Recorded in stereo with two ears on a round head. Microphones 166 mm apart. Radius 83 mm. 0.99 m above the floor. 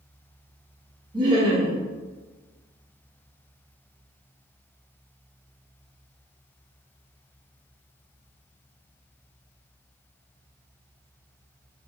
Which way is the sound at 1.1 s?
25° right (ahead or behind).